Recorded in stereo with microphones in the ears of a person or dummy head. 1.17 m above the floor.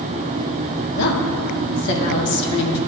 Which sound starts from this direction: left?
A woman speaking, at 0.9 s.